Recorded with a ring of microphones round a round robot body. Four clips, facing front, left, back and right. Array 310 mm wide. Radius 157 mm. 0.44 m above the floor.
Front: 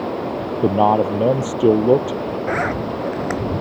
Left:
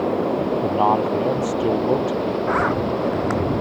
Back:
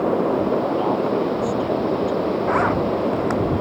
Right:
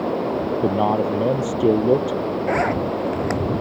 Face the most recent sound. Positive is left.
turn(degrees=-50)